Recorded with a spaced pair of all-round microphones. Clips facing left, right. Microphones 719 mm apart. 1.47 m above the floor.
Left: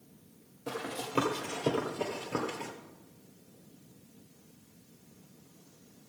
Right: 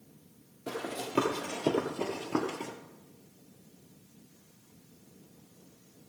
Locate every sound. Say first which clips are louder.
0.7 s running footsteps: right 1 dB; 5° right (ahead or behind), 2 m; by 2.7 s 15° left (ahead or behind), 1.5 m